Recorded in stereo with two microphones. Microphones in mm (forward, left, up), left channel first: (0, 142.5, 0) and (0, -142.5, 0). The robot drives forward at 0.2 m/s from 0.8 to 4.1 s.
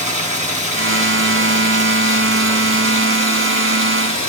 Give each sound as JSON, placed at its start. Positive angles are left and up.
{"t": 0.0, "sound": "running water", "side_deg": -25, "distance_m": 6.5}